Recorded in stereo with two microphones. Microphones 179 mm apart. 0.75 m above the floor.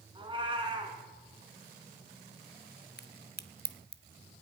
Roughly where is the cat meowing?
Right.